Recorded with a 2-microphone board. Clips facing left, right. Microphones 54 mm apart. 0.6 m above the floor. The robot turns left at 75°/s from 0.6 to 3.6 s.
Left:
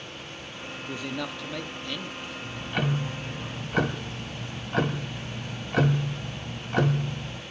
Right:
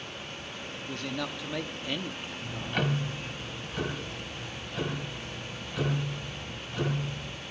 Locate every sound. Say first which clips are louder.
0.8 s a man speaking: left 2 dB; 15° left (ahead or behind), 1.0 m; by 2.9 s 20° right (ahead or behind), 1.0 m
2.4 s ticking: left 1 dB; 160° right, 1.3 m; by 7.4 s 110° left, 1.3 m